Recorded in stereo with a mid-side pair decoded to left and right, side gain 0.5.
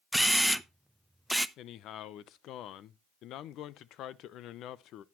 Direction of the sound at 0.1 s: Straight ahead.